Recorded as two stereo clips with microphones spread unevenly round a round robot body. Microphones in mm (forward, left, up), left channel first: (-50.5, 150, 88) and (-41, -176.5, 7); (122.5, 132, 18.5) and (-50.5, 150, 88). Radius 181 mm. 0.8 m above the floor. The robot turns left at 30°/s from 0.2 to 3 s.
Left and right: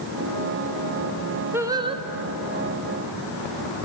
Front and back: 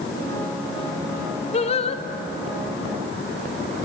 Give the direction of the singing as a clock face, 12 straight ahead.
1 o'clock.